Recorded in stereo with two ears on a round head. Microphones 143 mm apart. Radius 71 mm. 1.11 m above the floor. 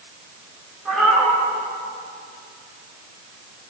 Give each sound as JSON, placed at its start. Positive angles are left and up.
{"t": 0.8, "sound": "a cat meowing", "side_deg": -5, "distance_m": 7.0}